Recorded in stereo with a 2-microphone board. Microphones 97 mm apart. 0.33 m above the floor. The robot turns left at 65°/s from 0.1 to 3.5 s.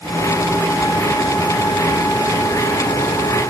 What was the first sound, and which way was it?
Only background noise.